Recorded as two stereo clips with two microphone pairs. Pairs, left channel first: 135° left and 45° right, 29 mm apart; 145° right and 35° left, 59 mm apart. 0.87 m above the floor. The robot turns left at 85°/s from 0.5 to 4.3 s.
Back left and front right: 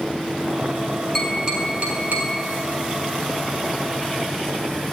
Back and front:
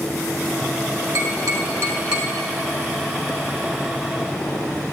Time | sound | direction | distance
1.1 | tapping | 45° left | 3 m